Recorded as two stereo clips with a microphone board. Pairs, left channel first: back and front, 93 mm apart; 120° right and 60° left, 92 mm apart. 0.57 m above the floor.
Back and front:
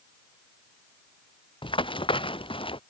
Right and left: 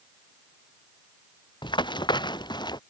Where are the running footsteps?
155° right; by 2.8 s 160° right.